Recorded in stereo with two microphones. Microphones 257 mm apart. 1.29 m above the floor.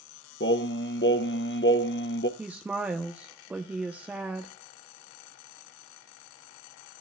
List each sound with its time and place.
0.4 s singing: 45° left (ahead or behind), 0.8 m
2.4 s a woman speaking: 5° right (ahead or behind), 0.9 m